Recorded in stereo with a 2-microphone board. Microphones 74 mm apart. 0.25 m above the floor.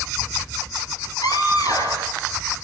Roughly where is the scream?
Left.